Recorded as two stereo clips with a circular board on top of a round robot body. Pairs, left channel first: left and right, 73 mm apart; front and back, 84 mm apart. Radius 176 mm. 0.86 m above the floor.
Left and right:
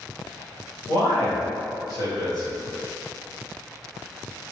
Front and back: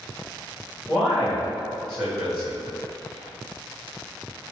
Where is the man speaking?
85° left, 2.0 m.